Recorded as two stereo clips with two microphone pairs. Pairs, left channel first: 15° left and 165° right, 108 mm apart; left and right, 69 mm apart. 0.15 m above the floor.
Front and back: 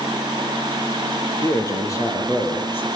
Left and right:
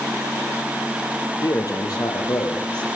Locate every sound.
1.4 s a man speaking: 70° left, 4.5 m; by 2.9 s 85° left, 4.5 m